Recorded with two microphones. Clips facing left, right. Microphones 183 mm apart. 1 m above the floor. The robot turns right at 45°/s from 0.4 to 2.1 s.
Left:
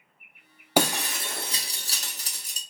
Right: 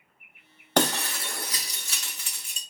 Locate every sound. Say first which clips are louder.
0.8 s breaking glass: even; 10° left, 0.6 m; by 2.6 s 70° left, 0.6 m